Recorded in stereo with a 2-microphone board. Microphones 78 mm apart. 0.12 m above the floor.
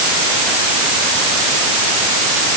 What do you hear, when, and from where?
Only background noise.